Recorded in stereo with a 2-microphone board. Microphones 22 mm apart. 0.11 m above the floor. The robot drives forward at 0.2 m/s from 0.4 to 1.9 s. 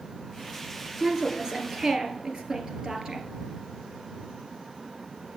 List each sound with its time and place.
1.0 s a woman speaking: 35° right (ahead or behind), 1.9 m